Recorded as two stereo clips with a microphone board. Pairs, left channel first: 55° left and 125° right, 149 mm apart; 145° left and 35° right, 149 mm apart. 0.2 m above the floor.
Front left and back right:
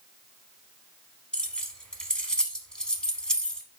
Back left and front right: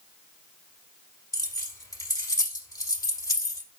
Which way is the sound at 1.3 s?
130° left.